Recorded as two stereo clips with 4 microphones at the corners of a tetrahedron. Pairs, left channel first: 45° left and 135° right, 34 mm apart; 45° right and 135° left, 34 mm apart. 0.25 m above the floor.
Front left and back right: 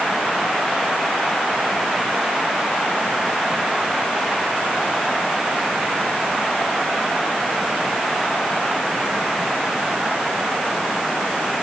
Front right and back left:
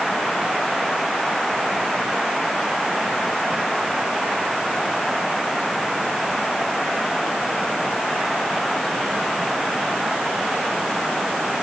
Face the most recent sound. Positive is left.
No sound to turn to.